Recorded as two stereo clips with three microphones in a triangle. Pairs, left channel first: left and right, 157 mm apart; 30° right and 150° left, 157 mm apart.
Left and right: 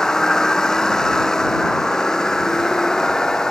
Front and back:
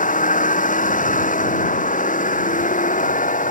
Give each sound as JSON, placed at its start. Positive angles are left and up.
{"t": 0.0, "sound": "a vehicle", "azimuth_deg": 5}